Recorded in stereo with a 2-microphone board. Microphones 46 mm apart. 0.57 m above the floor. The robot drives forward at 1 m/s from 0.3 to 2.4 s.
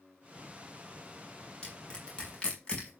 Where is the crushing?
20° left (ahead or behind), 6.5 m; by 2.9 s 25° left (ahead or behind), 5.5 m.